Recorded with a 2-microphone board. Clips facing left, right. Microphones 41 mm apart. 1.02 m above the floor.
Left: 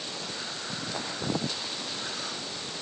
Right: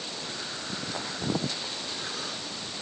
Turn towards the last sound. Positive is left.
No sound to turn to.